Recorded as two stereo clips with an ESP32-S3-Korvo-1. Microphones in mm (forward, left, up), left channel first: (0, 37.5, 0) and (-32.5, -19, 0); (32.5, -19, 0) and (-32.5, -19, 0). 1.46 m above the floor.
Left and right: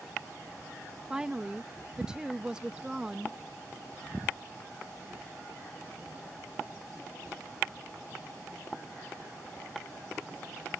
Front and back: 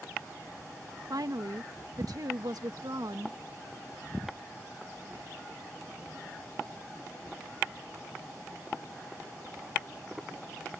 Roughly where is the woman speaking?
Behind.